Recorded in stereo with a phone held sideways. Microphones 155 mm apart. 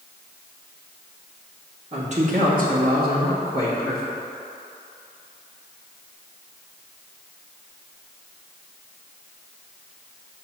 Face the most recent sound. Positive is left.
turn(degrees=-80)